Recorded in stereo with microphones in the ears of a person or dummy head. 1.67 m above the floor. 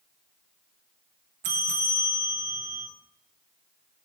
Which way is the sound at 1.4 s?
35° right (ahead or behind).